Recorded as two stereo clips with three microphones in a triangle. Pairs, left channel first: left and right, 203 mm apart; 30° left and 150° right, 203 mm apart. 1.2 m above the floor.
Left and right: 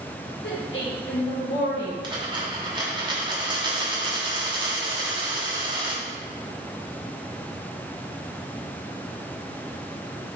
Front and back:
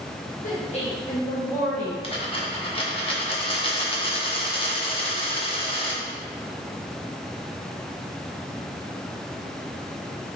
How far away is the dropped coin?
About 1.0 m.